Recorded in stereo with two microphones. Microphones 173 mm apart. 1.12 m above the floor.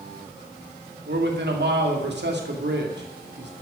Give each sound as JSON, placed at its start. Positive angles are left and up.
{"t": 1.1, "sound": "a man speaking", "side_deg": -85, "distance_m": 2.5}